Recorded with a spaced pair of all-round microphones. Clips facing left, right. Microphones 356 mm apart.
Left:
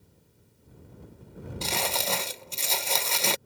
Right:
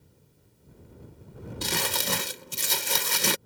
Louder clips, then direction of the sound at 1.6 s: Even; 25° right (ahead or behind).